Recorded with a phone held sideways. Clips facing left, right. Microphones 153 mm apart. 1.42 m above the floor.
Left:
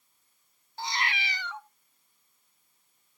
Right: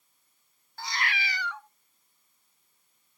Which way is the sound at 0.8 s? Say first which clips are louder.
Left 1 dB; 20° left (ahead or behind).